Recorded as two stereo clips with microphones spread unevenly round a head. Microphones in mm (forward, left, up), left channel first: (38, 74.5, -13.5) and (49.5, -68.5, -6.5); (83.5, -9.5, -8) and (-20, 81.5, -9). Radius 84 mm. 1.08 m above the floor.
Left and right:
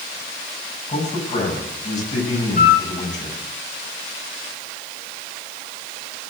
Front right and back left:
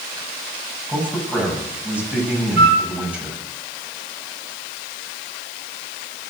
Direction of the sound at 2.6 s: 140° left.